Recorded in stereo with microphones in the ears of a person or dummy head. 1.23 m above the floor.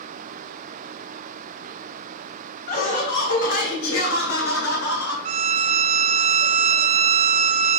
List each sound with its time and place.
2.7 s laughter: 50° left (ahead or behind), 1.7 m; by 5.2 s 80° left, 3 m
5.2 s a violin: 35° right (ahead or behind), 0.5 m